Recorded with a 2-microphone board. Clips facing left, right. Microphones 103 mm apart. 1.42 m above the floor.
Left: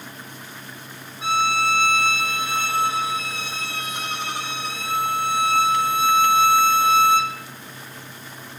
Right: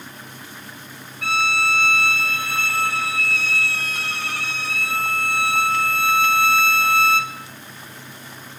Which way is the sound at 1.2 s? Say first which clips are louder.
Left 2 dB; 20° left (ahead or behind).